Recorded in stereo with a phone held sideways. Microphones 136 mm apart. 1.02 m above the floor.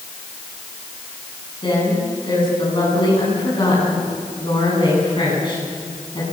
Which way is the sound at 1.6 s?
35° left (ahead or behind).